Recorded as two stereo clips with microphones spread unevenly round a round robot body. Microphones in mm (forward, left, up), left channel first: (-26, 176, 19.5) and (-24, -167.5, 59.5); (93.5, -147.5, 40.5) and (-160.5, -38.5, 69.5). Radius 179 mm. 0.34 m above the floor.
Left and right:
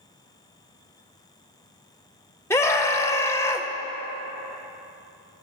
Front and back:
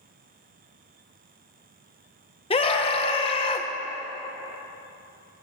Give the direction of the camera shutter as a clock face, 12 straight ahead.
No camera shutter in this recording.